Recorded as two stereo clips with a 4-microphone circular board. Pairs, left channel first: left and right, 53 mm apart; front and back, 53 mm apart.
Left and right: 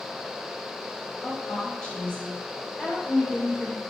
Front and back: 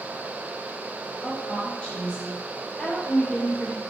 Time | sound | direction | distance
1.2 | a woman speaking | 35° left | 1.2 m